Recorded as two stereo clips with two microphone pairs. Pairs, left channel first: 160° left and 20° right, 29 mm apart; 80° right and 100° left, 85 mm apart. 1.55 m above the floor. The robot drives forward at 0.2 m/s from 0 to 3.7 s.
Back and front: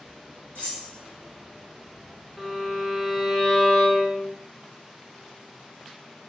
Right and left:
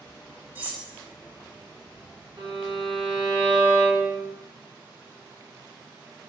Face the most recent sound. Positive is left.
turn(degrees=85)